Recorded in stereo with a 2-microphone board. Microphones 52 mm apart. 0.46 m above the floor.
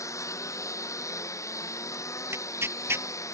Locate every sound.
0.0 s a lawn mower: 80° left
2.3 s tearing paper: 60° right (ahead or behind)